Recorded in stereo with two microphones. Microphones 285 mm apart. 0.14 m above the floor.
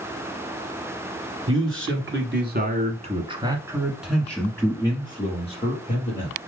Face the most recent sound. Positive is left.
turn(degrees=30)  # may be behind; listen again after turning